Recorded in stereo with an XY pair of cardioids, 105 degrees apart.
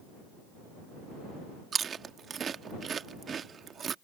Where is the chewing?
45° right.